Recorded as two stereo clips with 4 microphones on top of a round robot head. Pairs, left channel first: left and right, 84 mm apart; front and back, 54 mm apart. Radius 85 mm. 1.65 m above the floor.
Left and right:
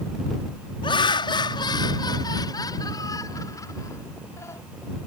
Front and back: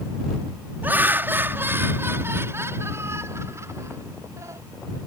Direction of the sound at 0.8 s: 120° left.